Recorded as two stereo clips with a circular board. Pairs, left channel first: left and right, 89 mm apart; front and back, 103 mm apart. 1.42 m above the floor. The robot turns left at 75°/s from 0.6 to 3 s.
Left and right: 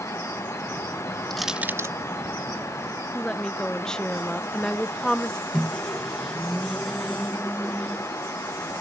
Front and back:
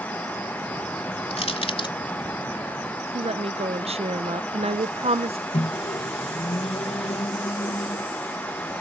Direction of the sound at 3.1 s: 170° left.